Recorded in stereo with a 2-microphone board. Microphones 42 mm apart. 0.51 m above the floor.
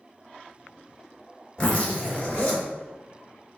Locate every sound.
1.6 s a zipper: 20° left (ahead or behind), 1.2 m